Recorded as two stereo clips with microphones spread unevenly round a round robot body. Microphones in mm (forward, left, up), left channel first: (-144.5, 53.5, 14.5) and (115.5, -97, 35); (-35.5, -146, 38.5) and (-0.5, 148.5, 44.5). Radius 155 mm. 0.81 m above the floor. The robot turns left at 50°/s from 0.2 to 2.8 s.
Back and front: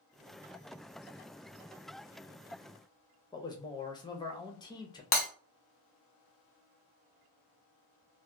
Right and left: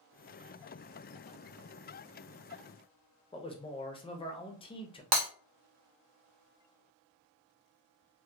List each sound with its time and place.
3.3 s a man speaking: 150° right, 0.7 m
5.1 s breaking glass: 90° left, 0.9 m